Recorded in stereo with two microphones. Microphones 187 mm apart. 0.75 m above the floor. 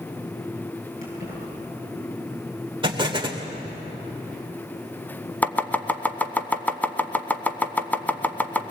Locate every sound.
1.0 s keys jangling: 50° left (ahead or behind), 8.5 m
2.8 s an explosion: 25° right (ahead or behind), 2 m
5.4 s chopping: 10° left (ahead or behind), 1.1 m